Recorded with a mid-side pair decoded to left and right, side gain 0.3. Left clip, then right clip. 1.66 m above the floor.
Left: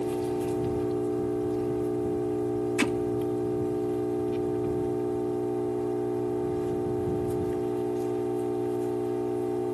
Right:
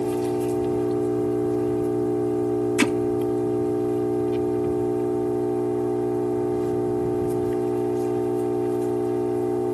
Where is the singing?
No singing in this recording.